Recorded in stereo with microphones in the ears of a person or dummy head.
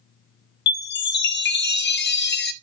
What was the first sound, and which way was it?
A chime, 50° left (ahead or behind).